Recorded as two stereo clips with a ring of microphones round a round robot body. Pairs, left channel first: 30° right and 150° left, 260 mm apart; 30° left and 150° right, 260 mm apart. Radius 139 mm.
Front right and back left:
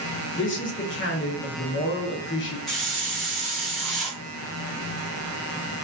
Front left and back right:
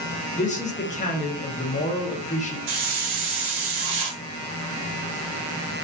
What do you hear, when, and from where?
0.4 s a man speaking: 20° right, 0.8 m
2.7 s a hiss: 120° right, 0.7 m